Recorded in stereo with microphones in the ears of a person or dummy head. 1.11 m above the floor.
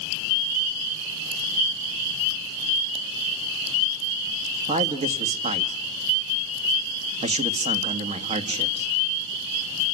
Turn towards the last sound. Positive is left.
turn(degrees=-35)  # may be behind; listen again after turning